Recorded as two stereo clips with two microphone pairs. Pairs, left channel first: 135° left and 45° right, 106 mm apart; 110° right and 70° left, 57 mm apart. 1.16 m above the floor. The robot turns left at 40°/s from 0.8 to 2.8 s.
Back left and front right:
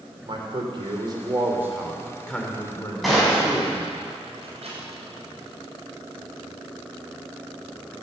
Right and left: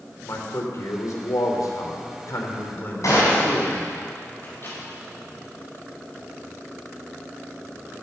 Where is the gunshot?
135° right, 7 m.